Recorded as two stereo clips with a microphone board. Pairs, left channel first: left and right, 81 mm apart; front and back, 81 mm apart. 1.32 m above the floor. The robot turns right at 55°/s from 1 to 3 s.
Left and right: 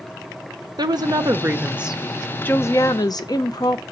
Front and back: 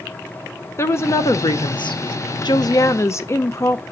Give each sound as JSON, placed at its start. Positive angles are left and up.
{"t": 0.8, "sound": "a woman speaking", "azimuth_deg": -55, "distance_m": 0.7}